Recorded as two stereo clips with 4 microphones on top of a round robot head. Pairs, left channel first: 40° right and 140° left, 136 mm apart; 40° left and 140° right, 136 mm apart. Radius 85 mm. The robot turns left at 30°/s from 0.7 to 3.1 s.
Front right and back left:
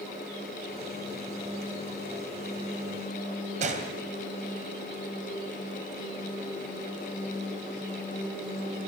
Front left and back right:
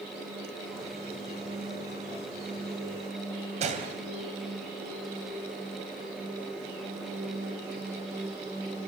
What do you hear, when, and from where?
3.6 s a gunshot: straight behind, 3 m